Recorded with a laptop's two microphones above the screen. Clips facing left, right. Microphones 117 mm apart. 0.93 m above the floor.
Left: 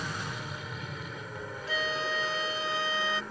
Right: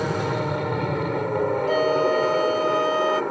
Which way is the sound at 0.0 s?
60° right (ahead or behind).